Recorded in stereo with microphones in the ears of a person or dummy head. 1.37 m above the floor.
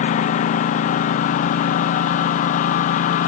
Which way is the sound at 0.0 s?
35° left (ahead or behind).